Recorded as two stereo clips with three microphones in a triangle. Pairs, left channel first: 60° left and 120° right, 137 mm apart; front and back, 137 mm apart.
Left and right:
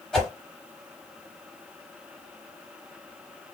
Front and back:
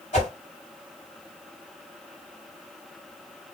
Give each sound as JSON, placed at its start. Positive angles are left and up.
{"t": 0.1, "sound": "a whoosh", "azimuth_deg": -25, "distance_m": 3.5}